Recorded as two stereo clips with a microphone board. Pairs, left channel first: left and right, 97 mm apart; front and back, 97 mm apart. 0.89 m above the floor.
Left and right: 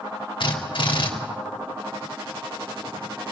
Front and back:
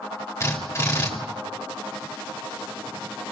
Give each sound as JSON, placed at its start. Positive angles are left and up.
{"t": 0.4, "sound": "a drill", "azimuth_deg": 65, "distance_m": 3.5}